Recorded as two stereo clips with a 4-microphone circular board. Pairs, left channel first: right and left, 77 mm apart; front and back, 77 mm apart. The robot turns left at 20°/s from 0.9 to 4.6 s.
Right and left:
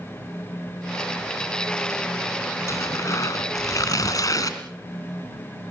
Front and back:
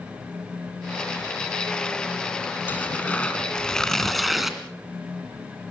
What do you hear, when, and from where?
2.7 s tearing paper: 60° right, 1.7 m; by 4.6 s 95° right, 1.7 m